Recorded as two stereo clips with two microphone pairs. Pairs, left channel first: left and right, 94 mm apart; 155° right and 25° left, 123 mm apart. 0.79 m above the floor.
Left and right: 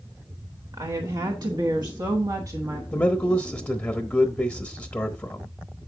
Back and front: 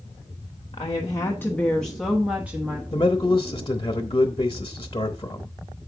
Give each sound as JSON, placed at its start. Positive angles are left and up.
{"t": 0.7, "sound": "a woman speaking", "azimuth_deg": -120, "distance_m": 1.1}
{"t": 2.9, "sound": "a man speaking", "azimuth_deg": 160, "distance_m": 0.8}